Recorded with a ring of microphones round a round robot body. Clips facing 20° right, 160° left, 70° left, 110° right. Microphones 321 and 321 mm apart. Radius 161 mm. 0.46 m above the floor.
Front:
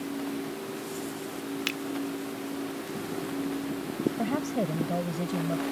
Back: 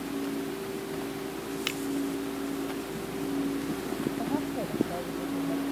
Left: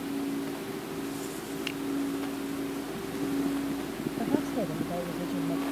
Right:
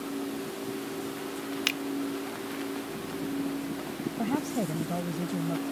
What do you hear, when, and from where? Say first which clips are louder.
1.7 s a finger snap: even, even; 105° right
4.2 s a woman speaking: front 1 dB, left 1 dB; 50° right